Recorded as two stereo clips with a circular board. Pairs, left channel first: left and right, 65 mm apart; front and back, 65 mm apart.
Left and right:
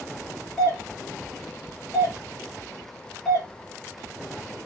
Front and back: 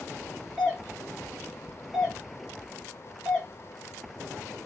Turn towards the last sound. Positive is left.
turn(degrees=105)